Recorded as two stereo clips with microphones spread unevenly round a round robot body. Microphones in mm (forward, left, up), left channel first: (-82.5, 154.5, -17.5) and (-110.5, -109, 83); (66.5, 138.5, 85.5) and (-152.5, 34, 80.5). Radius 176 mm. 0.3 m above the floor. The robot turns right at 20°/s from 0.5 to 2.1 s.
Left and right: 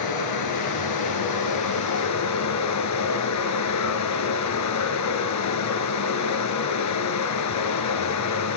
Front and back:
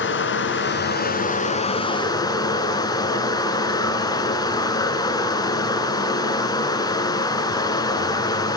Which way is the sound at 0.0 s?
70° left.